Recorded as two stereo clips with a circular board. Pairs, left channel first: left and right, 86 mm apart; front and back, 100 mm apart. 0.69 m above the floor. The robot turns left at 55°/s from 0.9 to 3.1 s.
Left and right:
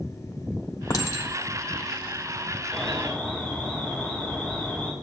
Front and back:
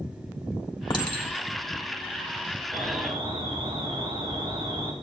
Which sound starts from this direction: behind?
An alarm, at 2.7 s.